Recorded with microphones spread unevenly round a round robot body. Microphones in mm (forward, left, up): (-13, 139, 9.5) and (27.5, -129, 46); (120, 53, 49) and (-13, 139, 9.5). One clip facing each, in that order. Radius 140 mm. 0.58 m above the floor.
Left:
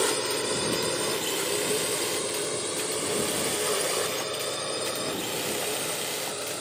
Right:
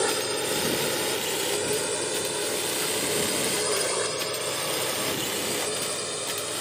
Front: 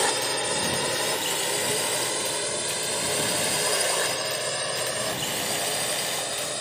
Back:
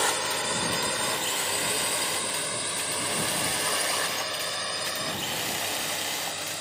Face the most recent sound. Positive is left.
turn(degrees=5)